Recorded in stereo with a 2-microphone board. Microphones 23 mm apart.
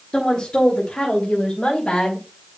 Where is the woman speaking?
40° left (ahead or behind), 1.7 m; by 2.2 s 55° left (ahead or behind), 3 m.